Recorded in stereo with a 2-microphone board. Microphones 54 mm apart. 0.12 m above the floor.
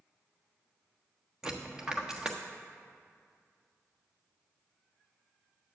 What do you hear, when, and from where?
1.4 s a dropped coin: 15° right (ahead or behind), 1.1 m